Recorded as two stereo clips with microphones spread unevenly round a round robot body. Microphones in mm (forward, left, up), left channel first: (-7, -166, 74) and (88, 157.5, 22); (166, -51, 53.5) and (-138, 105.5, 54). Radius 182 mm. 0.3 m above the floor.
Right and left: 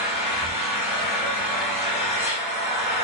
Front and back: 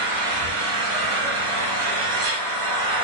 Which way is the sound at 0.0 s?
Straight behind.